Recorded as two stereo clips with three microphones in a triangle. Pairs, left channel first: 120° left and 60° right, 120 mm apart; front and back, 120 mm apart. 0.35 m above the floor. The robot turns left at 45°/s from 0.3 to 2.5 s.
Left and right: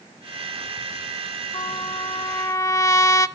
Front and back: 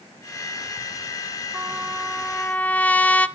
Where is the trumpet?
115° left, 0.7 m; by 3.3 s 70° left, 0.7 m.